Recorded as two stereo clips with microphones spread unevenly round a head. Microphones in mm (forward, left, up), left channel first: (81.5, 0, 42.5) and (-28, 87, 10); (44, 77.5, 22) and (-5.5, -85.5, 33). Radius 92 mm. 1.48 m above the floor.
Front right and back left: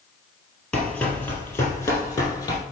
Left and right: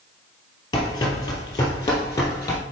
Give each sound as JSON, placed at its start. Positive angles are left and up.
{"t": 0.7, "sound": "running footsteps", "azimuth_deg": 15, "distance_m": 1.8}